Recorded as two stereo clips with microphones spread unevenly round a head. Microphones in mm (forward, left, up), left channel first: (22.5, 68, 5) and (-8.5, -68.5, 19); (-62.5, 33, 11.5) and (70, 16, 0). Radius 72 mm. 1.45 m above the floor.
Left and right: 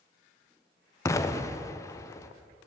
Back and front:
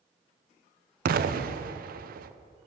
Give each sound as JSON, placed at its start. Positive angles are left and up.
{"t": 1.1, "sound": "an explosion", "azimuth_deg": 10, "distance_m": 0.5}